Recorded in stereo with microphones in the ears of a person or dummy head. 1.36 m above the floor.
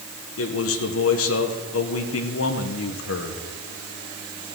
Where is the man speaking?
70° left (ahead or behind), 1.2 m.